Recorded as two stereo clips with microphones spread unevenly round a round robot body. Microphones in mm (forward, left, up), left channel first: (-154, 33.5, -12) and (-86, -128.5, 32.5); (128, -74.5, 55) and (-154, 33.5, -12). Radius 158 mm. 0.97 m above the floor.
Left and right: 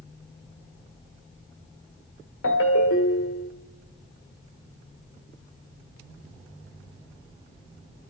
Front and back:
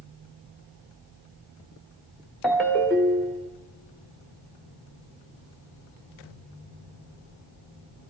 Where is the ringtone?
65° left, 1.2 m.